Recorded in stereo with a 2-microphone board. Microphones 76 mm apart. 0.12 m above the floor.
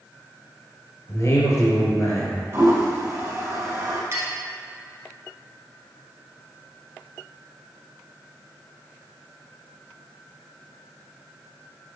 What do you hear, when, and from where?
1.1 s a man speaking: 40° left (ahead or behind), 2.5 m
2.5 s a toilet flushing: 35° right (ahead or behind), 2.0 m
4.1 s a clink: 40° right (ahead or behind), 1.5 m